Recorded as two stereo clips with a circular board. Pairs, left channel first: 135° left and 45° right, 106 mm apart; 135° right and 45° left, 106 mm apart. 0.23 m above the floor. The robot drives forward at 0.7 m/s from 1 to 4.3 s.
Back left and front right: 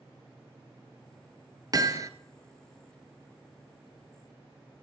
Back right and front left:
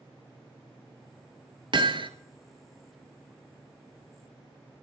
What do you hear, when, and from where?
1.7 s hammering: 5° left, 1.2 m; by 2.1 s 10° left, 0.9 m